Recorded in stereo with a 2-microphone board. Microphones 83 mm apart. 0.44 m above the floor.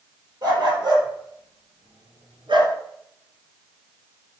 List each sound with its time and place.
0.4 s a dog barking: 60° right (ahead or behind), 4 m; by 2.8 s 85° right, 1.8 m